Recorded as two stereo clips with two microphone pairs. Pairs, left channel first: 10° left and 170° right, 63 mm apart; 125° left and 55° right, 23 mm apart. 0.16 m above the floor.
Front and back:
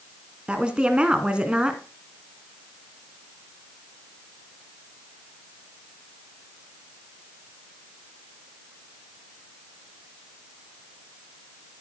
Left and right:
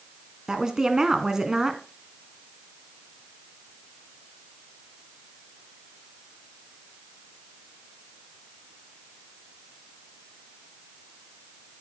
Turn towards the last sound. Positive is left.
turn(degrees=-105)